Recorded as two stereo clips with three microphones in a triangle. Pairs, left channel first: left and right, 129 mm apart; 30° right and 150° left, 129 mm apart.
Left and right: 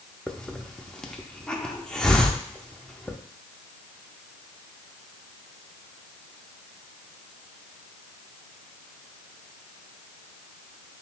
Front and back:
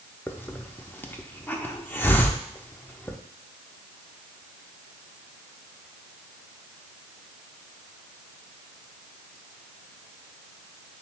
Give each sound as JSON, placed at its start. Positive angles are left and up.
{"t": 0.3, "sound": "a hiss", "azimuth_deg": 10, "distance_m": 0.5}